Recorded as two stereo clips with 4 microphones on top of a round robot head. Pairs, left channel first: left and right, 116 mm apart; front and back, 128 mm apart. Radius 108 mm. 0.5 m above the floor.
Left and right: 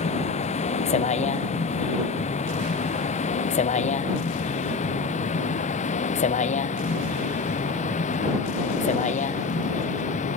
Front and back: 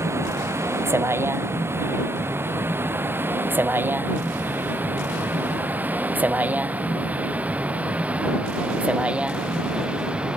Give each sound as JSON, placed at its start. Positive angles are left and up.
{"t": 0.0, "sound": "a vehicle", "azimuth_deg": 110}